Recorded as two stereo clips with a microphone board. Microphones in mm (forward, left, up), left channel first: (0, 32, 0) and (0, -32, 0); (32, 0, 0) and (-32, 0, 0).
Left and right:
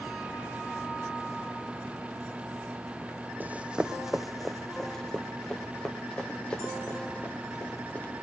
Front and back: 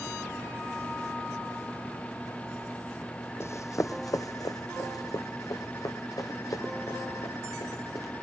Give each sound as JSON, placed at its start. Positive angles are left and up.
{"t": 3.4, "sound": "running footsteps", "azimuth_deg": -35, "distance_m": 0.8}